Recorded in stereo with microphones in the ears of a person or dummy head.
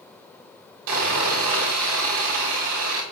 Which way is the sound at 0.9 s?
80° right.